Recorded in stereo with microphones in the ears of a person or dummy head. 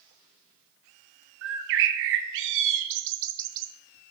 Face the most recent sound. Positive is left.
turn(degrees=-60)  # may be behind; listen again after turning